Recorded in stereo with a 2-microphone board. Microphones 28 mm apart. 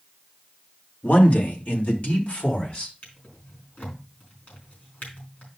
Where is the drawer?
65° left (ahead or behind), 4.5 m.